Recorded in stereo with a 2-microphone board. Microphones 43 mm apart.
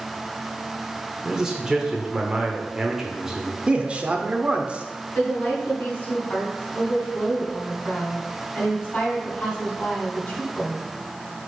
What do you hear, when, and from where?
1.2 s a man speaking: 15° right (ahead or behind), 1.1 m
3.7 s a man speaking: 25° right (ahead or behind), 0.8 m
5.2 s a woman speaking: 30° left (ahead or behind), 3 m